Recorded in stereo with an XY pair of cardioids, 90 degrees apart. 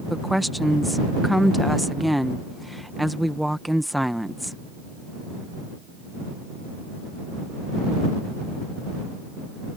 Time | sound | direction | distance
0.1 | a woman speaking | straight ahead | ?